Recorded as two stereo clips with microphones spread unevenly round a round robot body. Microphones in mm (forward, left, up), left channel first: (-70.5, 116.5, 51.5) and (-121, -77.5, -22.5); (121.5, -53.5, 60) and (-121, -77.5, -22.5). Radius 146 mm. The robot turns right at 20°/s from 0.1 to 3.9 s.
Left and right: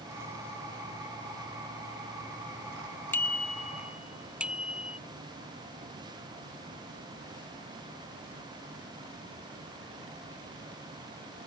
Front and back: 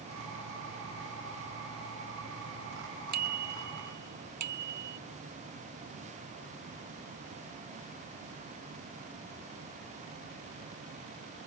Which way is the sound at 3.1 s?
155° left.